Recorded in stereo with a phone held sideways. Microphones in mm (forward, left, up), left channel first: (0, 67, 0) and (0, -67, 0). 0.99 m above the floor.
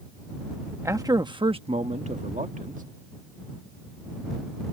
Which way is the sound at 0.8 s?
20° right (ahead or behind).